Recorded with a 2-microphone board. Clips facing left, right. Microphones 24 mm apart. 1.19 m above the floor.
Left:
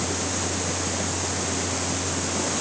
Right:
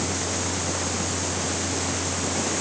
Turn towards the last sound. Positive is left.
No sound to turn to.